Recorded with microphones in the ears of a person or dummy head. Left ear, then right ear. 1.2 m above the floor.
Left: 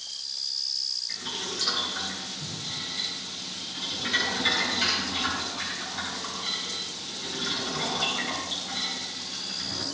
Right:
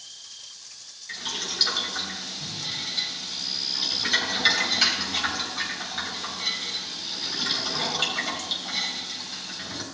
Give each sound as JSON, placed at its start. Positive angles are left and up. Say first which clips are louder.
{"t": 1.1, "sound": "boiling", "louder": "right 2 dB", "side_deg": -40, "distance_m": 4.0}